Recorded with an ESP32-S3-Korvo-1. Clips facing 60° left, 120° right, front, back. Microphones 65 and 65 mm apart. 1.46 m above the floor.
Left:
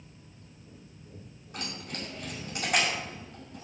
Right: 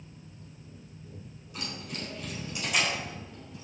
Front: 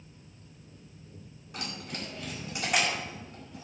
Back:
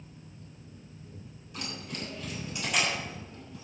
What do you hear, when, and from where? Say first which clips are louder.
1.5 s keys jangling: even, even; 20° left, 5.5 m